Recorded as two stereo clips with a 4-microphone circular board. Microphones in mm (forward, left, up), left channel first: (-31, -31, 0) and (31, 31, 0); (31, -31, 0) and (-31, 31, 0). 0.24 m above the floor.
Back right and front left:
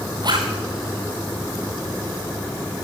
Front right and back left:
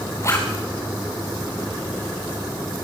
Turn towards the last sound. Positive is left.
turn(degrees=10)